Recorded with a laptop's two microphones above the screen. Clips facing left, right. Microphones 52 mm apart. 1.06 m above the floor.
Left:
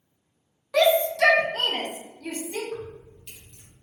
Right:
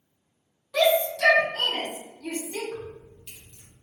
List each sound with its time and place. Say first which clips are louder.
0.7 s a shout: left 2 dB; 60° left (ahead or behind), 0.8 m; by 2.6 s 30° left (ahead or behind), 1.1 m
2.7 s keys jangling: left 2 dB; centre (ahead or behind), 1.5 m